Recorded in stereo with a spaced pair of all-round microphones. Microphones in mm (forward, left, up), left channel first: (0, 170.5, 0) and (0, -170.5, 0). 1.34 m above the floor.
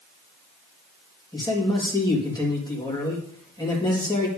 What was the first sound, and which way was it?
A man speaking, 10° left (ahead or behind).